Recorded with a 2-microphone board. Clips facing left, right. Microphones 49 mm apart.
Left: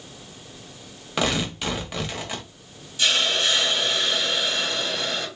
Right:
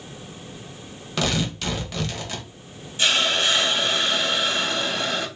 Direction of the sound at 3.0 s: 35° right (ahead or behind).